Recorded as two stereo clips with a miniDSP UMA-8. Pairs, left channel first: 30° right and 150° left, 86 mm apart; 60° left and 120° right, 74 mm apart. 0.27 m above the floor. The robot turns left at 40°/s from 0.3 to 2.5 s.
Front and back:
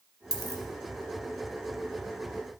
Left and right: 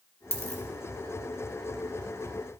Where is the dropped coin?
75° right, 2.5 m; by 0.6 s 85° right, 2.5 m.